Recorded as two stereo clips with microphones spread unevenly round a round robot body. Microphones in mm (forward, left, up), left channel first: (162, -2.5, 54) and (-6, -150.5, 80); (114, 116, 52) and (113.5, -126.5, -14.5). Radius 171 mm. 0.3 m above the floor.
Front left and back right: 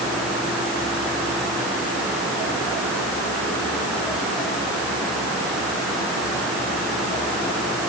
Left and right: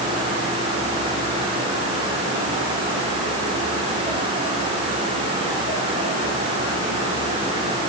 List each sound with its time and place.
Only background noise.